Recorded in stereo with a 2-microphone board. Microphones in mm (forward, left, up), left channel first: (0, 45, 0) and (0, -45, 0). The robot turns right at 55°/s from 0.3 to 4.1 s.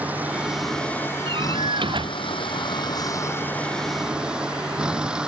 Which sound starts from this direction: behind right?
A door slam, at 1.3 s.